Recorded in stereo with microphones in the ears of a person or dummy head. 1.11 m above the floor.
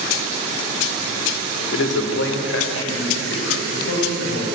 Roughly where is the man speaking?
Left.